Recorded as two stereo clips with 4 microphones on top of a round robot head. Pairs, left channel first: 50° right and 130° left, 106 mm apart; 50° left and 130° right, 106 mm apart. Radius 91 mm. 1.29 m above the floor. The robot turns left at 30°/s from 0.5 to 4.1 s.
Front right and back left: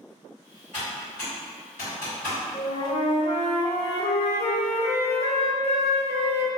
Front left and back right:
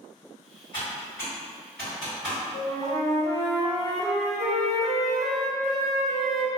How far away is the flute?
About 0.7 m.